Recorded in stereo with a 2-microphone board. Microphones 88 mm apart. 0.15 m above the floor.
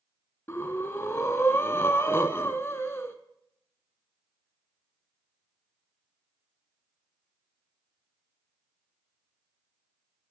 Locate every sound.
0.5 s breathing: 30° left (ahead or behind), 0.6 m